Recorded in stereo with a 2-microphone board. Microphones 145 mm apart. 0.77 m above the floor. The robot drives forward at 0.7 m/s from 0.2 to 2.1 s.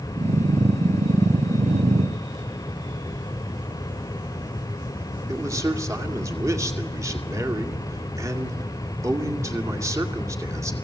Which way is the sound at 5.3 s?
20° right (ahead or behind).